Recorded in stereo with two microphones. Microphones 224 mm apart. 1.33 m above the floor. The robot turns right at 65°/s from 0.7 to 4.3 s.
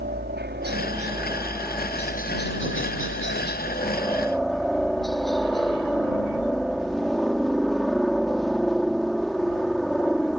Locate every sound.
0.0 s a helicopter: 55° right; by 10.4 s straight behind